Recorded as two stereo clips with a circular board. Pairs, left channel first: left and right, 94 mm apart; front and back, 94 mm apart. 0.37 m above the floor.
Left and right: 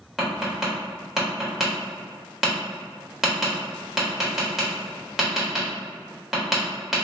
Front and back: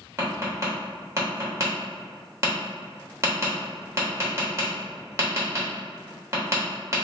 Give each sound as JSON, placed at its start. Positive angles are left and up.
{"t": 0.2, "sound": "tapping", "azimuth_deg": -175, "distance_m": 1.2}